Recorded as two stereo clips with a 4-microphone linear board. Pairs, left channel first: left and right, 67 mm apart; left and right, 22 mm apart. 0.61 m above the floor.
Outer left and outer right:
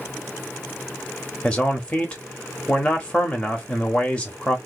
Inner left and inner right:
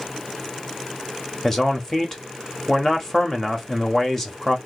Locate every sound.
1.4 s a man speaking: 20° left (ahead or behind), 1.0 m